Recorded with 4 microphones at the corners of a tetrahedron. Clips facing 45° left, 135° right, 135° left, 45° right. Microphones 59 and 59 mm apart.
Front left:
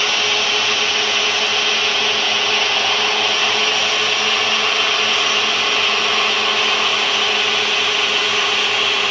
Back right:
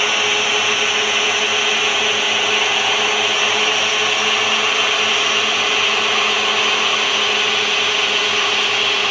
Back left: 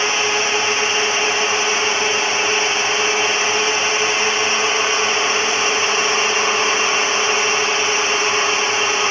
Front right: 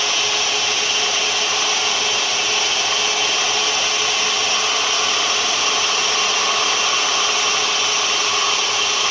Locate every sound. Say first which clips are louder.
0.0 s a drone: back right 1 dB, back left 3 dB; 155° left; by 9.1 s 135° left